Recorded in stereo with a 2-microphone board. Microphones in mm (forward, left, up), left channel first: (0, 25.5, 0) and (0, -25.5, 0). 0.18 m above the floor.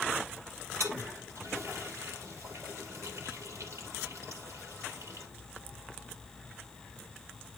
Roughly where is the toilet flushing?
Right.